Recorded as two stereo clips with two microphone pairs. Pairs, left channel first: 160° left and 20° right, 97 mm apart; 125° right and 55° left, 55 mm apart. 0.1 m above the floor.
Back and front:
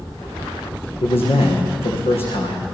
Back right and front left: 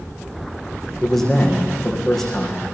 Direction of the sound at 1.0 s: 155° left.